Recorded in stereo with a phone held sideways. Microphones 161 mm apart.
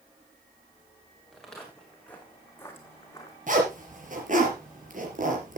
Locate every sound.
1.3 s footsteps: centre (ahead or behind), 3.5 m; by 3.4 s 20° left (ahead or behind), 3.5 m
3.5 s a zipper: 55° right (ahead or behind), 4 m